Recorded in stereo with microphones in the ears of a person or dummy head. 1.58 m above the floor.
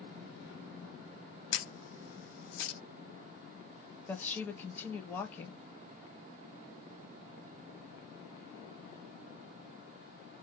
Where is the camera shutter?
65° left (ahead or behind), 0.8 m.